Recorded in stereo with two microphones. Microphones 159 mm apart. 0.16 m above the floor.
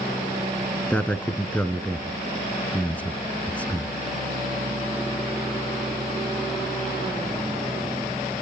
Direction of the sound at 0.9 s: 10° left (ahead or behind).